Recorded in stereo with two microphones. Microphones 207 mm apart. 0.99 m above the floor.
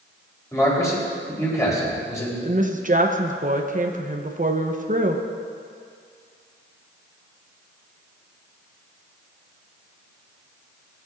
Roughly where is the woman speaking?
Right.